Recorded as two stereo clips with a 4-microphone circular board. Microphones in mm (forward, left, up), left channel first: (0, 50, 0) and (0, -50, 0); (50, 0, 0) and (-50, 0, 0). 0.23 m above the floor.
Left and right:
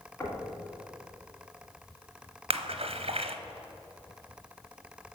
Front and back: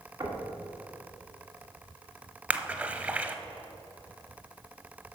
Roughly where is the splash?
Right.